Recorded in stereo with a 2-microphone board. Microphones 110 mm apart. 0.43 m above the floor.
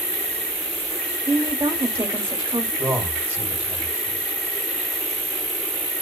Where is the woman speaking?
20° right (ahead or behind), 1.2 m.